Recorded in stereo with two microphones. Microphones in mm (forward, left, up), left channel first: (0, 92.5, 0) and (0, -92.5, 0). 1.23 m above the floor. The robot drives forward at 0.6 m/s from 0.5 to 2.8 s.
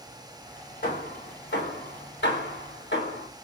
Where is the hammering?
60° left (ahead or behind), 1.9 m; by 3.3 s 75° left (ahead or behind), 1.7 m.